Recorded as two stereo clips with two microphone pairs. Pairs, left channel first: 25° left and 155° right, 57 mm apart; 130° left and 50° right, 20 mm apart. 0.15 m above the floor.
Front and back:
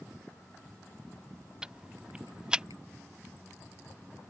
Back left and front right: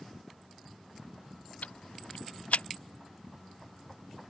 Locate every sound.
1.6 s ticking: 130° left